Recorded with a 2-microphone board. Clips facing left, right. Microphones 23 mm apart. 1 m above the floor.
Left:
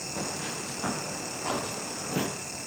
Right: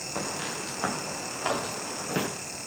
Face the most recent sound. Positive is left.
turn(degrees=-55)  # may be behind; listen again after turning